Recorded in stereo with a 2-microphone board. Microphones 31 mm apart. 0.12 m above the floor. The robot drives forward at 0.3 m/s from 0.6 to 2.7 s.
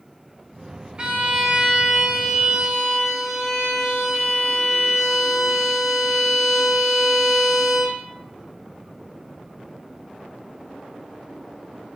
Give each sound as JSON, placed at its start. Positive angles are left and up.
{"t": 1.0, "sound": "a violin", "side_deg": -30, "distance_m": 0.7}